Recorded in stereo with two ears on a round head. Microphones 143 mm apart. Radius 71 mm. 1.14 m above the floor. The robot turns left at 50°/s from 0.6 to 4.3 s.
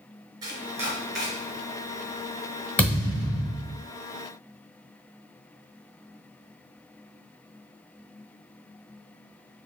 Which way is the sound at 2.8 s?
170° left.